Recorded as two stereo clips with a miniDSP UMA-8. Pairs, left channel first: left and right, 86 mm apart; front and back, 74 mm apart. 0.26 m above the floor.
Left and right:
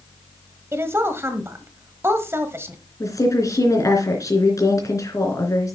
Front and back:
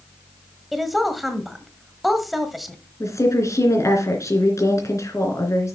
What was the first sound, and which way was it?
A woman speaking, 90° right.